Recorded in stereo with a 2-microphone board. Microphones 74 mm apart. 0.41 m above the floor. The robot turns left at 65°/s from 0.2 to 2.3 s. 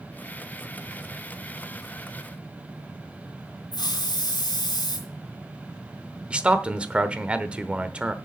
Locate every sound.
3.7 s a hiss: 70° left (ahead or behind), 3.5 m
6.3 s a man speaking: 15° right (ahead or behind), 0.9 m